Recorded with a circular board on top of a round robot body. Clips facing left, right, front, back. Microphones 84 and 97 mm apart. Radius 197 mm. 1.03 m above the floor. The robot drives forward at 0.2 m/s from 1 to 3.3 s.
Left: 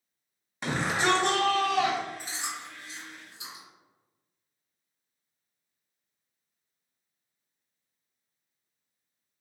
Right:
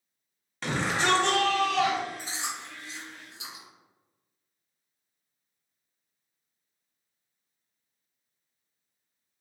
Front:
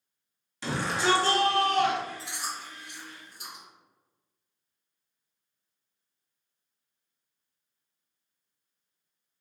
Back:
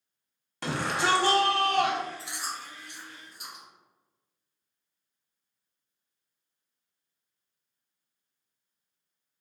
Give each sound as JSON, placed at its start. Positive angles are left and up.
{"t": 0.6, "sound": "a shout", "azimuth_deg": 165, "distance_m": 1.3}
{"t": 2.2, "sound": "chewing", "azimuth_deg": -95, "distance_m": 1.4}